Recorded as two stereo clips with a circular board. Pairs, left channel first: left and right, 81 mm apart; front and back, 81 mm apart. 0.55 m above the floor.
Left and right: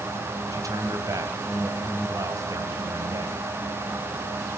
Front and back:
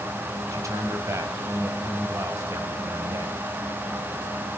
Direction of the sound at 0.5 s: 130° right.